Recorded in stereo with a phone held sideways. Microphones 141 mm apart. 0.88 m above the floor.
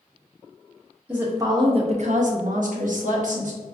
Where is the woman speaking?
10° right (ahead or behind), 0.7 m; by 3.8 s 60° right (ahead or behind), 1.4 m.